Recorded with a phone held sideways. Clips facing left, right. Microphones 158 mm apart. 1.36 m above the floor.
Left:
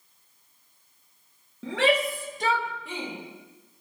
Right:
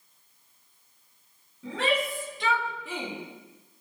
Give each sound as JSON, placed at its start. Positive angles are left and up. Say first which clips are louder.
{"t": 1.6, "sound": "a shout", "louder": "left 4 dB", "side_deg": 80, "distance_m": 1.2}